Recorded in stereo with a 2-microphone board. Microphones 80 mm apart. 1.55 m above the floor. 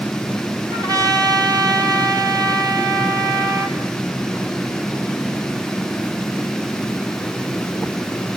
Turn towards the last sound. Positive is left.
turn(degrees=-50)  # may be behind; listen again after turning